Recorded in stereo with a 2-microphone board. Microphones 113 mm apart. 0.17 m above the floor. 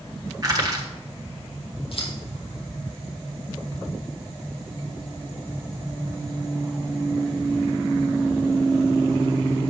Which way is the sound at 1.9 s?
55° left (ahead or behind).